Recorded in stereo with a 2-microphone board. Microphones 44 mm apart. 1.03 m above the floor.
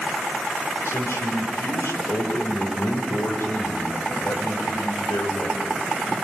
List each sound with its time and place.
0.8 s a man speaking: 80° left, 4.5 m